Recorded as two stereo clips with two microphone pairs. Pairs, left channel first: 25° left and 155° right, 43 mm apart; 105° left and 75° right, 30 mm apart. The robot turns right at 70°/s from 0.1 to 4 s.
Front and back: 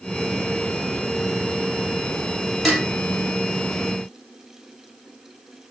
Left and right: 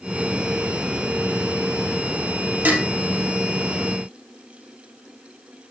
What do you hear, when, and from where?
2.6 s dishes clattering: 65° right, 3.5 m; by 2.9 s 50° right, 3.5 m